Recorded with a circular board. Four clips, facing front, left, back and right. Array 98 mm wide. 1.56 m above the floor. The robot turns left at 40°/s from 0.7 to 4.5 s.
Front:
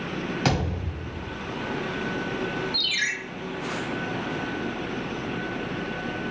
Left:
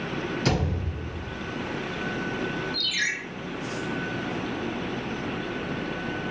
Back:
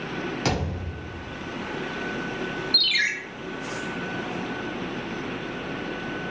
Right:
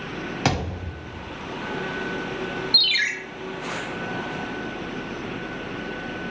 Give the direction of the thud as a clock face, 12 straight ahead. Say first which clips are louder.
Right 4 dB, front 3 dB; 3 o'clock.